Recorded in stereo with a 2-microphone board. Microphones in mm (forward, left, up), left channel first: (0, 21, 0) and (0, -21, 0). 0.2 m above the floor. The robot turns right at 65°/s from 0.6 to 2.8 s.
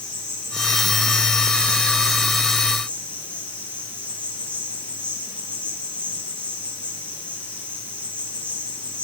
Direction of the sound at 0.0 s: 110° right.